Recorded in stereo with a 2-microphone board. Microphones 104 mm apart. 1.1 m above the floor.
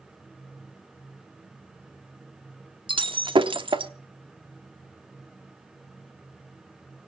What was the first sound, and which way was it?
Breaking glass, 50° right (ahead or behind).